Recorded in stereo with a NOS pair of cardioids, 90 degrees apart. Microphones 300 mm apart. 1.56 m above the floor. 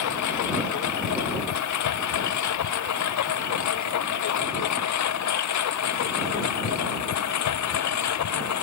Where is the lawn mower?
70° left; by 8.6 s 65° left.